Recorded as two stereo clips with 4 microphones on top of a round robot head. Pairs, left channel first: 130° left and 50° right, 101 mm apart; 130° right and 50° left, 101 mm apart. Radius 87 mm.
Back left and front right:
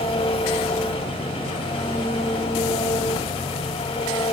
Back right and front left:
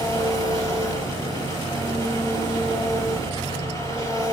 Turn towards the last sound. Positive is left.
turn(degrees=175)